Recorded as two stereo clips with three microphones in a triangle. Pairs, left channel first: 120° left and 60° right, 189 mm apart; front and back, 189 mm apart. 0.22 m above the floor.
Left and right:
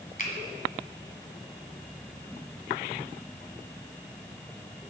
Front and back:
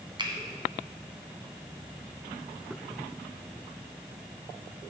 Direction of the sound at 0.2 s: 125° left.